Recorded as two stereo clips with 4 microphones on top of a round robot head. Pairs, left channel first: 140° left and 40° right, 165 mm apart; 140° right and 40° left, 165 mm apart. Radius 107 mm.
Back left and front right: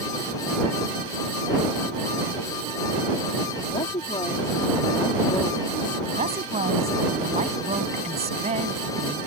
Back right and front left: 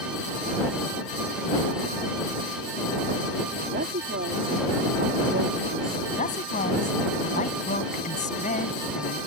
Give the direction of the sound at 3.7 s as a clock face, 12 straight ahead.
9 o'clock.